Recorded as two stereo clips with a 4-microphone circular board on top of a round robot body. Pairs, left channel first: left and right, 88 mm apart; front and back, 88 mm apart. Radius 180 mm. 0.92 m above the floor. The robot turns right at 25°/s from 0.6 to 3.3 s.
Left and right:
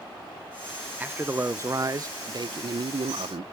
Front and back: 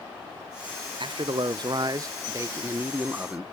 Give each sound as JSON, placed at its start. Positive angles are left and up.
{"t": 1.0, "sound": "a man speaking", "azimuth_deg": -160, "distance_m": 0.6}